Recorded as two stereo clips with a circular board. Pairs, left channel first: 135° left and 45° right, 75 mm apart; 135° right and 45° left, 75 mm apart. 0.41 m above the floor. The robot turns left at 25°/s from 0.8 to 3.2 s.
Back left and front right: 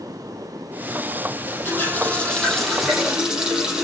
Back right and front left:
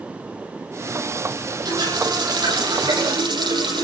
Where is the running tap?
75° left, 9.5 m; by 3.9 s 35° left, 9.5 m.